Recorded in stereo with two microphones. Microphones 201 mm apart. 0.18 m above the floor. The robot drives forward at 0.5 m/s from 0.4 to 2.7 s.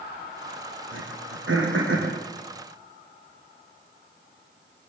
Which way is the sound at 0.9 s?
80° right.